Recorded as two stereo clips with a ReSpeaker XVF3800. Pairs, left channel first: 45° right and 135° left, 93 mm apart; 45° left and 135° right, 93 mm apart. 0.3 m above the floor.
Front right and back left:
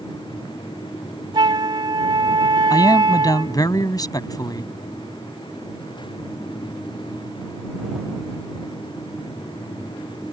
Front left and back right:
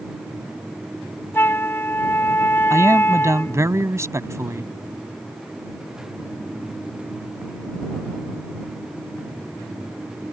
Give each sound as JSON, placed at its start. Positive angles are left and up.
{"t": 1.3, "sound": "a flute", "azimuth_deg": 110}
{"t": 2.7, "sound": "a man speaking", "azimuth_deg": -80}